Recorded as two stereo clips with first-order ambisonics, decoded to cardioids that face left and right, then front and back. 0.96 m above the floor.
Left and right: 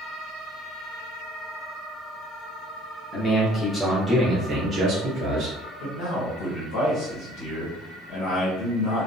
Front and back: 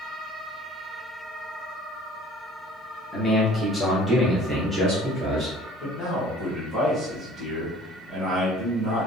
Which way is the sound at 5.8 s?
115° left.